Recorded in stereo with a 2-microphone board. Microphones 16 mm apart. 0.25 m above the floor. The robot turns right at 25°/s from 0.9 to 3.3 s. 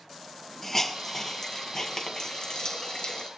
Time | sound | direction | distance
0.6 | a hiss | 20° left (ahead or behind) | 1.5 m